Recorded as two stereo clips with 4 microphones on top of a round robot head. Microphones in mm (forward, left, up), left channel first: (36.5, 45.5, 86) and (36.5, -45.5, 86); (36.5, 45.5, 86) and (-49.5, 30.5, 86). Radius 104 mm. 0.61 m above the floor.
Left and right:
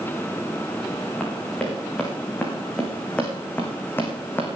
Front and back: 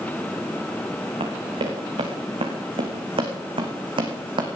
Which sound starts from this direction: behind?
Running footsteps, at 1.2 s.